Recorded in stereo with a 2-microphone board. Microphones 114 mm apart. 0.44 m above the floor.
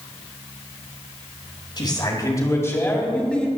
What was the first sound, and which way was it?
A man speaking, 45° left (ahead or behind).